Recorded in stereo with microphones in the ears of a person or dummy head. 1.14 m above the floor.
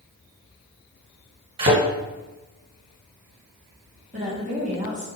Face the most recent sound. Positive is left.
turn(degrees=-30)  # may be behind; listen again after turning